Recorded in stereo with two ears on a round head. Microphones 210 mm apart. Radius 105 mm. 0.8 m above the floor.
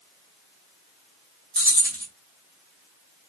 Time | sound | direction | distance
1.6 | keys jangling | 5° left (ahead or behind) | 2 m